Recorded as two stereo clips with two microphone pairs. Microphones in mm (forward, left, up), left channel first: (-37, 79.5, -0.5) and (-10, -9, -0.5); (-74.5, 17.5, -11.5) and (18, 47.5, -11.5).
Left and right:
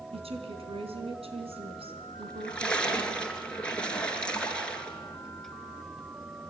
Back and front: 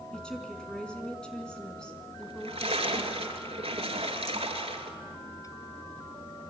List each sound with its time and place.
0.1 s a woman speaking: 80° right, 4 m
2.2 s a splash: 30° left, 2.5 m